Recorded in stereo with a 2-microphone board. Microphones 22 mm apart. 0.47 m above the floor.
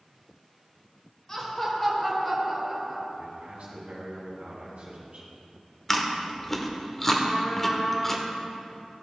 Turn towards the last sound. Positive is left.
turn(degrees=15)  # may be behind; listen again after turning